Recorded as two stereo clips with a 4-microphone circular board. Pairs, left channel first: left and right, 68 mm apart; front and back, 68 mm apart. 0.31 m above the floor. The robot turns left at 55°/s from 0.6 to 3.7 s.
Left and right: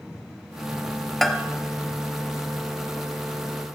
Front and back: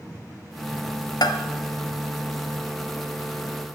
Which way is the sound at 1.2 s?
5° left.